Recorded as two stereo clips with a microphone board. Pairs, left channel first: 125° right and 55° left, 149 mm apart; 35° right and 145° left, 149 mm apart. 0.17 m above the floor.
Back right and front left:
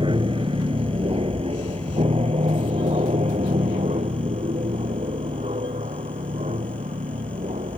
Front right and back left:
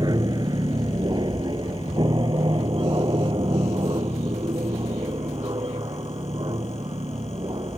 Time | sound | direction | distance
0.0 | an aircraft | 95° left | ?